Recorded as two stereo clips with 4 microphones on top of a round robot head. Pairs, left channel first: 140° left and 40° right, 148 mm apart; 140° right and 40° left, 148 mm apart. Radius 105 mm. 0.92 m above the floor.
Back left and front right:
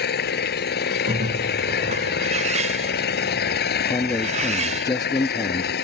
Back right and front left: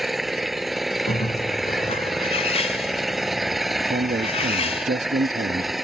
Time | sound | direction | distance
0.0 | an engine running | 130° left | ?
1.1 | a bird | 90° right | ?
3.9 | a man speaking | 75° left | ?